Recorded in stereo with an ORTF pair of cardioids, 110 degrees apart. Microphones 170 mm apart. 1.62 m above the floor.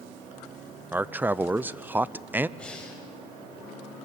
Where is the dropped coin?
No dropped coin in this recording.